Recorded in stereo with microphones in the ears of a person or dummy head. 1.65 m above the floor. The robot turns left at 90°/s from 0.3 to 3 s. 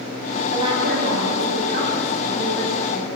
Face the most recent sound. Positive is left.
turn(degrees=130)